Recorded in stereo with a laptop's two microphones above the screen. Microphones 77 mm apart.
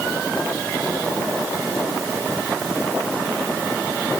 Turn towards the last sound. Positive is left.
No sound to turn to.